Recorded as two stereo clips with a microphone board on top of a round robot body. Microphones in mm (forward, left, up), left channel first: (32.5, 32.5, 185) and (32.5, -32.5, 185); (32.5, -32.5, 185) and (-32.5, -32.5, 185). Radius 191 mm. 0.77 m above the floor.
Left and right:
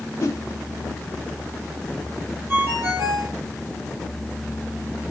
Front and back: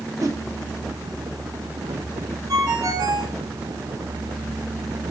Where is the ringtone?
150° right, 10 m.